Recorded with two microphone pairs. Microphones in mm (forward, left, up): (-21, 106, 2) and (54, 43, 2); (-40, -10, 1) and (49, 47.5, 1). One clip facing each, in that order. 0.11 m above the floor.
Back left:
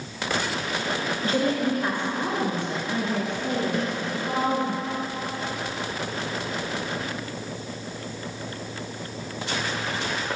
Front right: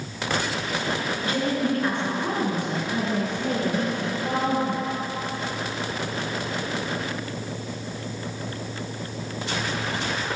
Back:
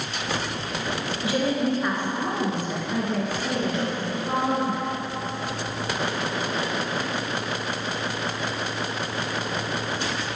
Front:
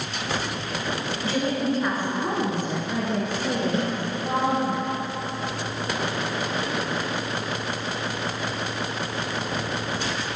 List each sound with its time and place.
1.2 s a woman speaking: 150° left, 1.3 m; by 4.7 s 10° right, 2.5 m
3.7 s a snare drum: 20° left, 1.9 m